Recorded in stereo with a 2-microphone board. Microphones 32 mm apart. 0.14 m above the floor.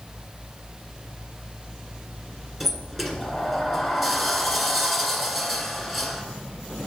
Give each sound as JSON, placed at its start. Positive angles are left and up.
{"t": 2.6, "sound": "a sliding door", "side_deg": 0, "distance_m": 1.3}